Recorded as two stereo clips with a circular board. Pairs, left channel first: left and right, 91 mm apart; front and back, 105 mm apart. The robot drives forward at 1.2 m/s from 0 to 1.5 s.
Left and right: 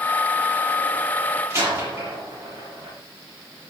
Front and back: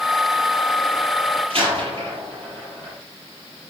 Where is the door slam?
145° right, 7.5 m.